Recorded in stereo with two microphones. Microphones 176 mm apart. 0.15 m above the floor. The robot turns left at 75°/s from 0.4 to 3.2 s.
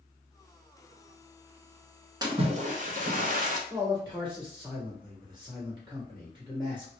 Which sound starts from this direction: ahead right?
A splash, at 2.2 s.